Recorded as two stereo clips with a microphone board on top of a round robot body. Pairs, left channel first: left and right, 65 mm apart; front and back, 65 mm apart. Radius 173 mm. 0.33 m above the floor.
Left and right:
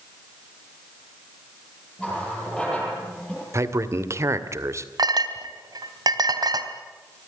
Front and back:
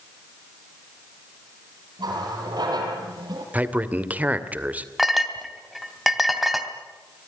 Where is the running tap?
170° left, 8.5 m.